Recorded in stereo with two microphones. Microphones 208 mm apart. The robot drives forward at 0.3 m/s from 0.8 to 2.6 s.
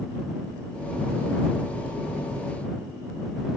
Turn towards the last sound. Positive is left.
No sound to turn to.